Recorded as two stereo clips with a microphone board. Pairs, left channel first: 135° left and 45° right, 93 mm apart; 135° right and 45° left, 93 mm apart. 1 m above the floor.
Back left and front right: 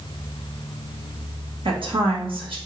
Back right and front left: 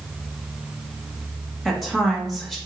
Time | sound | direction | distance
1.6 | a woman speaking | 45° right | 1.4 m